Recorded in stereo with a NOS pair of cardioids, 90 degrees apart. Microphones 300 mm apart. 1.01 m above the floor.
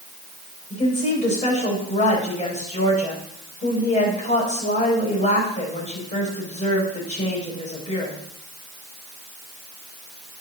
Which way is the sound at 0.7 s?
25° left.